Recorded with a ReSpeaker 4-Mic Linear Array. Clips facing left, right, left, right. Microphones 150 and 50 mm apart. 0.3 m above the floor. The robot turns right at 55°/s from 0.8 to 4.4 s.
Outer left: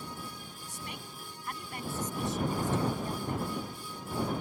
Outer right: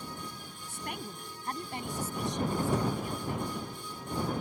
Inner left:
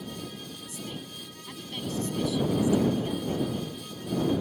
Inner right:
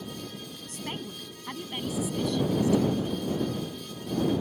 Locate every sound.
0.7 s a woman speaking: 80° right; by 3.7 s 80° left